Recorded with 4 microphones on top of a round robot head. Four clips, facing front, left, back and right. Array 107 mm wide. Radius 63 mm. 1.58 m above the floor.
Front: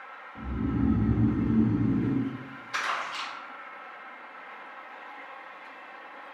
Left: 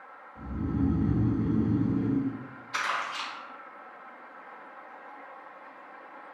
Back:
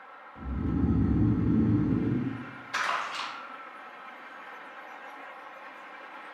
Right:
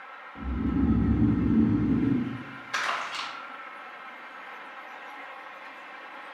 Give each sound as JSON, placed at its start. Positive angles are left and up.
{"t": 0.3, "sound": "snoring", "azimuth_deg": -35, "distance_m": 1.7}
{"t": 2.7, "sound": "crumpling", "azimuth_deg": -80, "distance_m": 1.6}